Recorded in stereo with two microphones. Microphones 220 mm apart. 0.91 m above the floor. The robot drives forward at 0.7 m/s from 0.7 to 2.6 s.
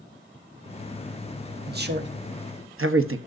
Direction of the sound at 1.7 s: 45° right (ahead or behind).